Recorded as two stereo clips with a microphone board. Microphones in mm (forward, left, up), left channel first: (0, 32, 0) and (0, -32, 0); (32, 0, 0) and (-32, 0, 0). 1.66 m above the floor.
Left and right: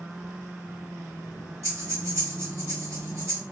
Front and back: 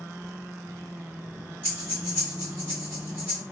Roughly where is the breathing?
Behind right.